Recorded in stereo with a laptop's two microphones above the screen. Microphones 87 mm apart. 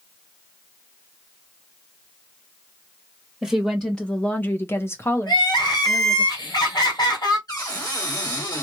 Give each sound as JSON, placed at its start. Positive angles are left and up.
{"t": 3.4, "sound": "a woman speaking", "side_deg": 0, "distance_m": 1.1}
{"t": 5.3, "sound": "crying", "side_deg": 60, "distance_m": 2.0}
{"t": 7.5, "sound": "a cupboard door", "side_deg": 50, "distance_m": 1.7}